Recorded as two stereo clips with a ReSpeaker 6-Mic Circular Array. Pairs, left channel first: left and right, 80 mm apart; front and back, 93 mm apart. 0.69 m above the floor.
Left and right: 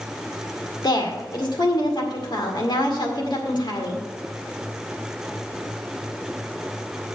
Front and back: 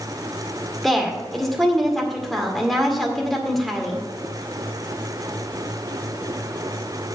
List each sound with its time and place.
0.8 s a woman speaking: 85° left, 2 m